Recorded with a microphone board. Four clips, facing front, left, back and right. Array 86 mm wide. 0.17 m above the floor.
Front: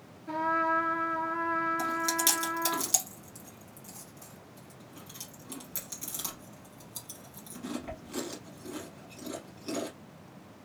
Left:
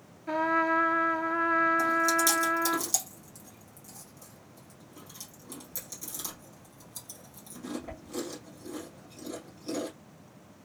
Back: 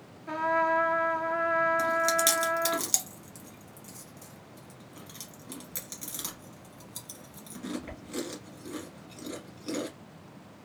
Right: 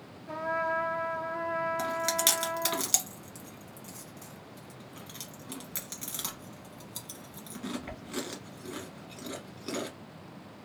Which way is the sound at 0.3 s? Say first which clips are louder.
Left 5 dB, back 2 dB; 110° left.